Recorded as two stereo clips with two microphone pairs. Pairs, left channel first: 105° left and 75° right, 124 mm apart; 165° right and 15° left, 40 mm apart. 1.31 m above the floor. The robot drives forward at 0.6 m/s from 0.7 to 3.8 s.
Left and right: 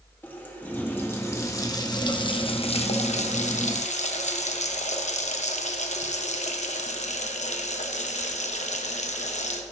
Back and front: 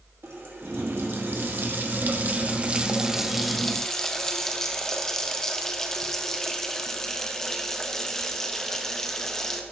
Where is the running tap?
30° left, 1.7 m; by 9.6 s 115° left, 1.0 m.